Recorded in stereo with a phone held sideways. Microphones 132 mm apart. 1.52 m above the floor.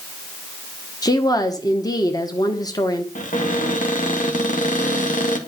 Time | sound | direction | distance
1.0 | a woman speaking | 30° left (ahead or behind) | 1.2 m
3.1 | a cupboard door | 75° left (ahead or behind) | 2 m